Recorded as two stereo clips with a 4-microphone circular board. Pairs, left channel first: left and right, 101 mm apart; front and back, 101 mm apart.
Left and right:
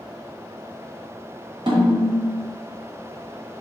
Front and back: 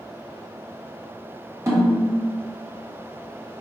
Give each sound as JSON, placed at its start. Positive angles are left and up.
{"t": 1.7, "sound": "a snare drum", "azimuth_deg": -120, "distance_m": 1.6}